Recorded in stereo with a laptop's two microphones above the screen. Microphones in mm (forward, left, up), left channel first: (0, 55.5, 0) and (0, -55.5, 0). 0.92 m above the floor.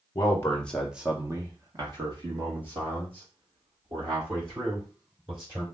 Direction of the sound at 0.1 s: 30° left (ahead or behind).